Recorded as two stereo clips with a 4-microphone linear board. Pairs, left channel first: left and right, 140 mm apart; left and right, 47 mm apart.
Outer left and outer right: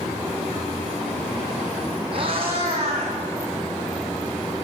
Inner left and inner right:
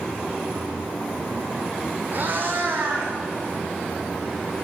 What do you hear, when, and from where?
2.1 s a cat meowing: 45° right (ahead or behind), 1.4 m; by 3.1 s 50° right (ahead or behind), 2.5 m